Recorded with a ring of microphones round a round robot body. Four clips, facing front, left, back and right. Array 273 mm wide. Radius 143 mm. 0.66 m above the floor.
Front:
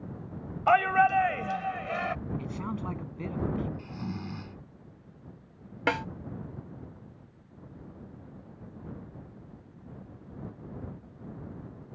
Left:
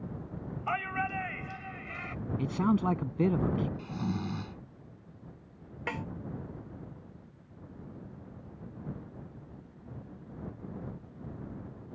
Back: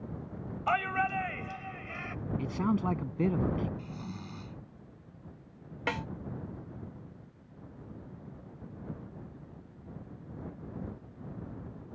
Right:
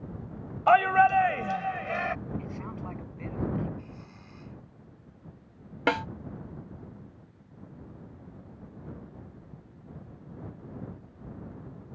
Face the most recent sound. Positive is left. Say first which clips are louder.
# right 11 dB, front 6 dB
turn(degrees=-65)